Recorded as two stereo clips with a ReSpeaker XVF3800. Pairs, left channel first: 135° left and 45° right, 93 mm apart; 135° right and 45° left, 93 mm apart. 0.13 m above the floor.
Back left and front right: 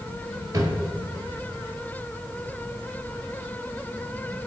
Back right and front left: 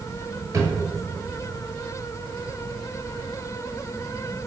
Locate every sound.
0.5 s a drawer: 5° right, 1.2 m